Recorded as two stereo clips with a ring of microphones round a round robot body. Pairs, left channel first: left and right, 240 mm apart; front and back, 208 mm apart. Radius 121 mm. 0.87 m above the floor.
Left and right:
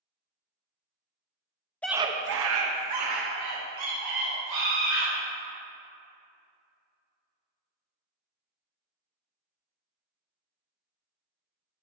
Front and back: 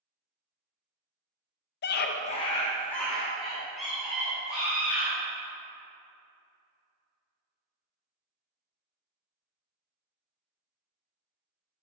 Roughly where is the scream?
Ahead.